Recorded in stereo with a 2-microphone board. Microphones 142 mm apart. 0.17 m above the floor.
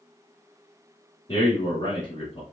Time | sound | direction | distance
1.3 | a man speaking | 40° left (ahead or behind) | 1.4 m